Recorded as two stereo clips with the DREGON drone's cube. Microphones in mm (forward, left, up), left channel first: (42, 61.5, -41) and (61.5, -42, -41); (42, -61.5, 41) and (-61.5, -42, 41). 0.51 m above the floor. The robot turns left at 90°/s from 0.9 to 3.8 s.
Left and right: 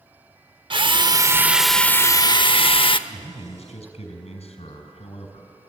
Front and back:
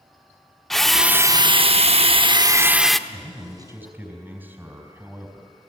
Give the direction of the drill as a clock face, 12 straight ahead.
3 o'clock.